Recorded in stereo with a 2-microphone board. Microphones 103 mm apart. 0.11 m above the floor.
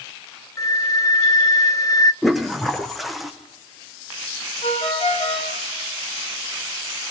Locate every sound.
0.6 s a flute: 35° left (ahead or behind), 0.9 m
2.2 s a toilet flushing: centre (ahead or behind), 2.5 m
4.6 s a ringtone: 80° left, 7.5 m